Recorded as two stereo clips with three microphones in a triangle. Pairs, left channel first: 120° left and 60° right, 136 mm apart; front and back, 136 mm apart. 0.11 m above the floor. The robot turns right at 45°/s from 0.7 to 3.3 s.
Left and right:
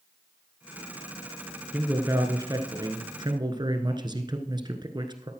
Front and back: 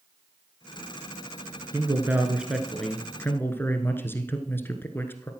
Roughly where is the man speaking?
Behind right.